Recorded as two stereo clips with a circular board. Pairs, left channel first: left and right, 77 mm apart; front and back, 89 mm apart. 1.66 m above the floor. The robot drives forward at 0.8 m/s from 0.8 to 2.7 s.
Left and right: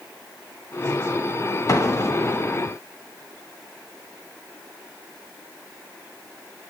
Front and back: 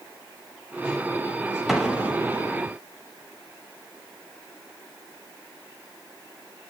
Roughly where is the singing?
No singing in this recording.